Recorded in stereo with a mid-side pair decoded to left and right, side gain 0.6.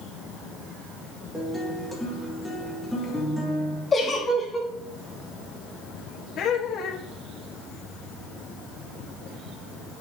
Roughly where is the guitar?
Ahead.